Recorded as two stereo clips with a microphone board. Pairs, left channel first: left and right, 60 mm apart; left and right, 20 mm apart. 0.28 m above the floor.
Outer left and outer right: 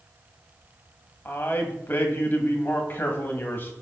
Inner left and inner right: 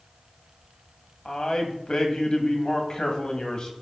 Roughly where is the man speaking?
Left.